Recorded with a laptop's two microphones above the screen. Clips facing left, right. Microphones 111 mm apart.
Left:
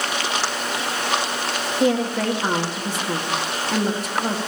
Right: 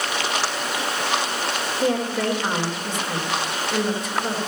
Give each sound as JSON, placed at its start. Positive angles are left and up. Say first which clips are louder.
{"t": 1.8, "sound": "a woman speaking", "louder": "left 3 dB", "side_deg": 70, "distance_m": 1.4}